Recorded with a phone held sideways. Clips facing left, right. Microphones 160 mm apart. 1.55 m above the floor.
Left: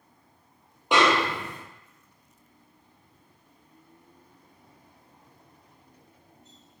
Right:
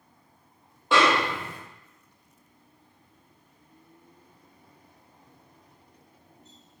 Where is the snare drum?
20° left (ahead or behind), 0.6 m.